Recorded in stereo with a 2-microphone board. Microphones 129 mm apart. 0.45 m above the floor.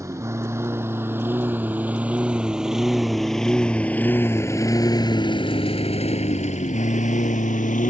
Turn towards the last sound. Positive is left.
turn(degrees=85)